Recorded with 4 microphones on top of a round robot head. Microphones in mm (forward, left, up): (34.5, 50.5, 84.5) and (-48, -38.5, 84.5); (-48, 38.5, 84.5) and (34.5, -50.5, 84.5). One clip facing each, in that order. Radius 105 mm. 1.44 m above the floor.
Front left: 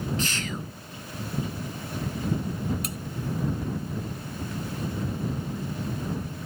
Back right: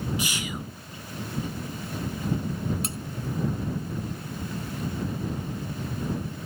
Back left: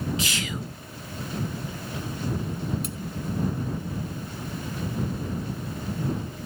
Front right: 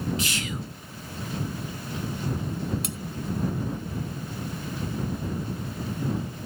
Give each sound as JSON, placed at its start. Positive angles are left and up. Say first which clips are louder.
{"t": 0.2, "sound": "whispering", "louder": "front left 1 dB, back left 1 dB", "azimuth_deg": 150}
{"t": 2.8, "sound": "cutlery clinking", "louder": "even, even", "azimuth_deg": -70}